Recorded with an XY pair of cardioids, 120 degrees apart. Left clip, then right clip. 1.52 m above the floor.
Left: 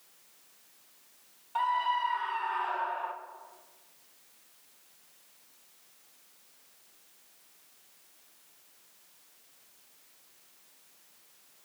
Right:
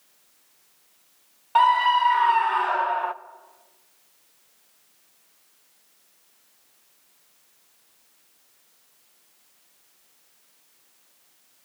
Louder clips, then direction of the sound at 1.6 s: Right 11 dB; 65° right.